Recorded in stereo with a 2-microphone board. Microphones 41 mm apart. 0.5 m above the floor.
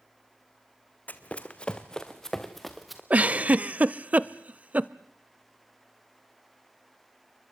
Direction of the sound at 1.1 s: 40° left (ahead or behind).